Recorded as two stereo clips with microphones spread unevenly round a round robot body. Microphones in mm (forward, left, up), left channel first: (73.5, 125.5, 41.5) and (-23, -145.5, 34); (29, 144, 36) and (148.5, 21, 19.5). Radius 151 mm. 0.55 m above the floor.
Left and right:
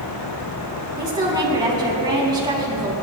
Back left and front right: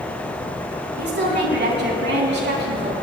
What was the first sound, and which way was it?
A woman speaking, 35° right.